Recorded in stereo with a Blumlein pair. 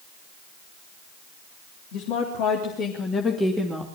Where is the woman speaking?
45° left, 3.5 m; by 3.9 s 5° right, 2.5 m.